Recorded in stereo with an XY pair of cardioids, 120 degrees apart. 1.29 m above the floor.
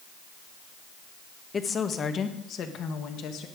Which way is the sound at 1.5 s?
30° left.